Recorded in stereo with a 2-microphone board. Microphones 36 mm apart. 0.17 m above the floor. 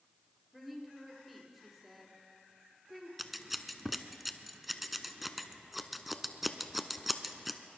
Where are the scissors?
5° right (ahead or behind), 0.7 m.